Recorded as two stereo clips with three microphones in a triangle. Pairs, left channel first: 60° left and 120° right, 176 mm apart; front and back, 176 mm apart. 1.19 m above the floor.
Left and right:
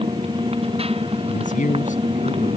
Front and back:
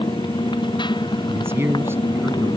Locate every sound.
0.0 s a motorcycle: 65° right
1.3 s a man speaking: 105° left